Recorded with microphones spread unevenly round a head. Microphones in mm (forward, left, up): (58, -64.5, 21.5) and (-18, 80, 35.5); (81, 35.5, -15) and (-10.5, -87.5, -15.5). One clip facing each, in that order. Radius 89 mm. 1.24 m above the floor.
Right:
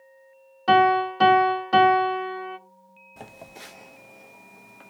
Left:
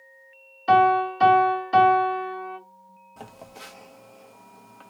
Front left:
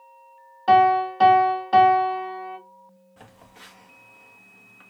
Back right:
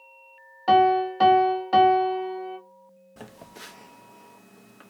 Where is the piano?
45° right, 2 m.